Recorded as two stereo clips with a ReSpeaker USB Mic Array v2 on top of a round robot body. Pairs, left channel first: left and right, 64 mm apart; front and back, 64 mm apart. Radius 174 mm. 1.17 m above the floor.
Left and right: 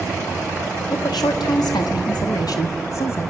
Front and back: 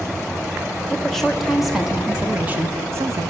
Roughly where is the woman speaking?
Left.